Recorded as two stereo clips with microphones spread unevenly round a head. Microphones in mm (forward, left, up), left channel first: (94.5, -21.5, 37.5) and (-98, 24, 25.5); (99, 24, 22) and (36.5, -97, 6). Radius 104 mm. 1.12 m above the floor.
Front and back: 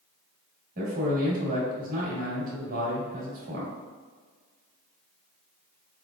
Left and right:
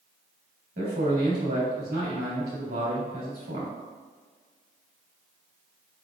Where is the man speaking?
145° right, 1.9 m.